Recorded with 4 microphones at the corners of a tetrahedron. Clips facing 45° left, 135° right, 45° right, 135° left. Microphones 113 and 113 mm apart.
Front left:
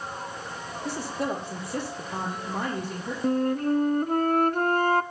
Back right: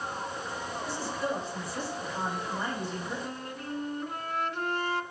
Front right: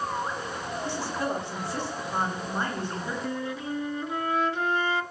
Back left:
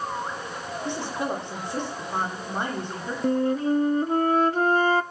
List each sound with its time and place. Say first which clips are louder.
0.8 s a woman speaking: front left 4 dB, back left 2 dB; 65° left, 8.5 m
3.2 s a flute: front left 14 dB, back left 9 dB; 85° left, 0.7 m